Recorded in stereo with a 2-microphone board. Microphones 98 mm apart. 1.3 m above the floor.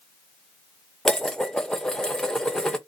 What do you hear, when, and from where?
1.1 s dishes clattering: 5° left (ahead or behind), 0.7 m